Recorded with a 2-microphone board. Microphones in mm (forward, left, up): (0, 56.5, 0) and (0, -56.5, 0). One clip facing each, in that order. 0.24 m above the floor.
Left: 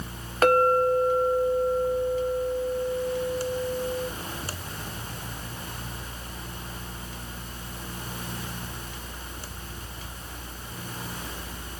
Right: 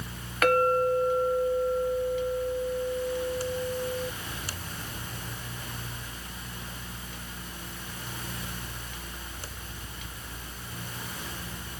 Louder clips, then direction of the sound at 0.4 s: Left 3 dB; 30° left (ahead or behind).